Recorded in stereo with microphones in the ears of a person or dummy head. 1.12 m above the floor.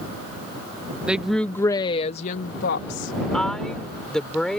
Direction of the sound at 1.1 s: 5° right (ahead or behind).